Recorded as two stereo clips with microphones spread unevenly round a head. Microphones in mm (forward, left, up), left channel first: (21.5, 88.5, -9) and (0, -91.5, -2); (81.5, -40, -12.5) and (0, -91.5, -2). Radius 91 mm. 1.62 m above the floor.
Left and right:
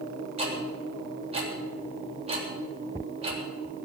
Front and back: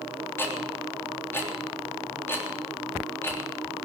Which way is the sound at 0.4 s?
35° right.